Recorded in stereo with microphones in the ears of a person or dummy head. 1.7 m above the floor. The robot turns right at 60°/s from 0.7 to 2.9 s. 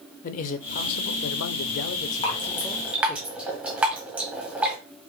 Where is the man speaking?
50° left, 0.6 m; by 3.2 s straight behind, 0.6 m.